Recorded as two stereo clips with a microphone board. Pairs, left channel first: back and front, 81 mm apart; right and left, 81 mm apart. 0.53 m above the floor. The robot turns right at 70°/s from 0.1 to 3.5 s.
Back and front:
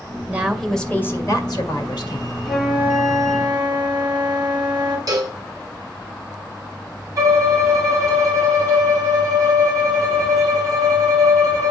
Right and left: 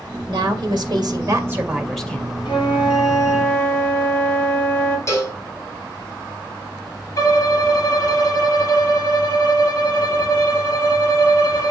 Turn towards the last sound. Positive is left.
turn(degrees=-45)